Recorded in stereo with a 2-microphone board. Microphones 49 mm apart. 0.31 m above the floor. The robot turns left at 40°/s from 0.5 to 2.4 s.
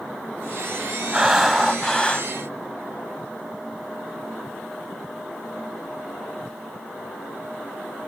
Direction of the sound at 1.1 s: 170° right.